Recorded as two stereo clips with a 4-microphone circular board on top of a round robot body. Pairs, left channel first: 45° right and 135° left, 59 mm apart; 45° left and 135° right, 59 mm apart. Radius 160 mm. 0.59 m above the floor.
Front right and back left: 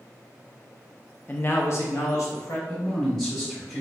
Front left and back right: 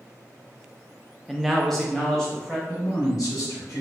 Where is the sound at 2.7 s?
40° left, 1.9 m.